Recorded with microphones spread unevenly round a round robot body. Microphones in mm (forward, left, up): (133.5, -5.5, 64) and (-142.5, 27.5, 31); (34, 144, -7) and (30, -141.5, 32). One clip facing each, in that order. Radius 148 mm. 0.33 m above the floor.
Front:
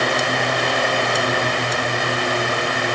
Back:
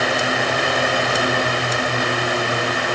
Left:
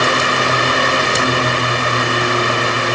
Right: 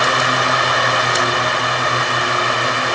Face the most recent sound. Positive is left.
No sound to turn to.